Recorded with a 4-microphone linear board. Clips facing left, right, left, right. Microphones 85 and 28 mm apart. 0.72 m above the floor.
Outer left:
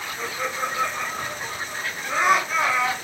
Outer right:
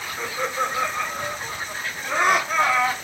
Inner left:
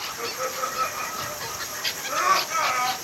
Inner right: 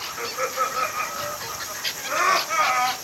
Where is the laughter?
75° right (ahead or behind), 1.9 m; by 2.9 s 45° right (ahead or behind), 1.3 m.